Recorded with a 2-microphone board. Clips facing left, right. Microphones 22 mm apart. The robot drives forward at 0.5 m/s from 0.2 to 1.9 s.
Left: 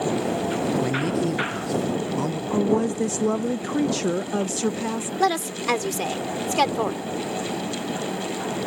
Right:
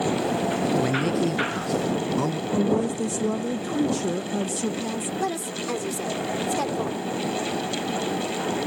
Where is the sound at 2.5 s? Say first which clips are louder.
Left 3 dB; 45° left (ahead or behind).